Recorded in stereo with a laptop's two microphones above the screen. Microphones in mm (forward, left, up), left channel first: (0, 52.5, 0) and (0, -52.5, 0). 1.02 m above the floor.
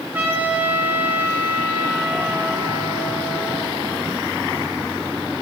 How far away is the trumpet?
About 3.5 m.